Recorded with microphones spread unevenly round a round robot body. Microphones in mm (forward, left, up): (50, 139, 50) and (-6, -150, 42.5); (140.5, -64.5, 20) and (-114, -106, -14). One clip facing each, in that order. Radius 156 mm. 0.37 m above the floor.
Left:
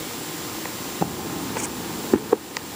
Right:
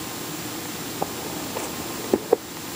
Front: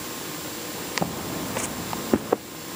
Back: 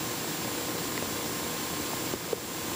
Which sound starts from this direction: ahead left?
Footsteps, at 1.0 s.